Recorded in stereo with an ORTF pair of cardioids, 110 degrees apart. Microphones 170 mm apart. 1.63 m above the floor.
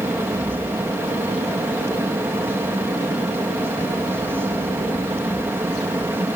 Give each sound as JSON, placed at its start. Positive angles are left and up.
{"t": 0.0, "sound": "a fan", "azimuth_deg": -15}